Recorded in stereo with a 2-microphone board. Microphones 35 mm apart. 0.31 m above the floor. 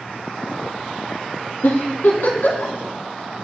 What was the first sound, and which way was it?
A giggle, 75° left (ahead or behind).